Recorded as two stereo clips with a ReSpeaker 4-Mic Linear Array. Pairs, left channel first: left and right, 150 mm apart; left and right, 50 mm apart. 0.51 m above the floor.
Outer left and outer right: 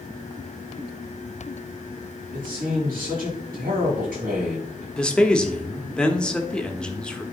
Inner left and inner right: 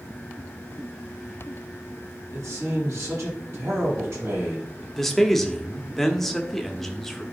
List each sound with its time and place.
2.3 s a man speaking: 70° right (ahead or behind), 4 m
5.0 s a man speaking: 5° left (ahead or behind), 1.0 m